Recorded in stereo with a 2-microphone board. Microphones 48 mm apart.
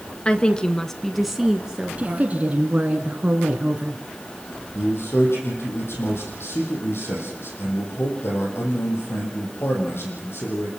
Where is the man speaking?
60° left (ahead or behind), 6.5 m.